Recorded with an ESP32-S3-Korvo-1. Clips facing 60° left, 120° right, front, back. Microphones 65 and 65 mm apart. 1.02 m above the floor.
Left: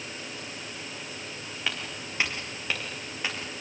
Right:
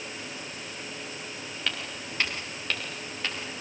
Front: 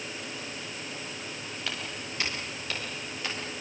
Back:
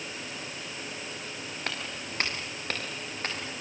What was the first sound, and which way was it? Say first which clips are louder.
Footsteps: left 1 dB, back 1 dB; 140° left.